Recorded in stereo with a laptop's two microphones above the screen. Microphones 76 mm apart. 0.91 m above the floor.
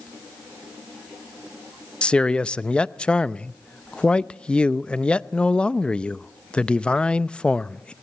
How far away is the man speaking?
About 0.5 m.